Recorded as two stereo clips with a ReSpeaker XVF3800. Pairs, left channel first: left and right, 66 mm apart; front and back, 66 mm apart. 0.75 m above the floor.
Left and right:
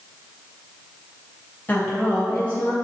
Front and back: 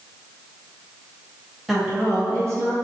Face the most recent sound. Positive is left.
turn(degrees=155)